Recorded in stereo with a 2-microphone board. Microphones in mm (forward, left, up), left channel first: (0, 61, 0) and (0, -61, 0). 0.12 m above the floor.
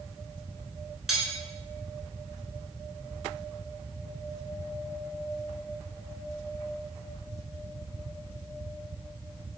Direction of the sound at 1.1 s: 5° right (ahead or behind).